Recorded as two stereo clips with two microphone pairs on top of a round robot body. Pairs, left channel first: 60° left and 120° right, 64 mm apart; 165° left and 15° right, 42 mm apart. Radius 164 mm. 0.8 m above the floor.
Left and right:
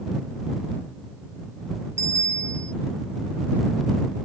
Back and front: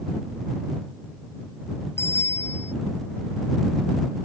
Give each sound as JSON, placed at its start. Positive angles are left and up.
{"t": 2.0, "sound": "a bicycle bell", "azimuth_deg": -165}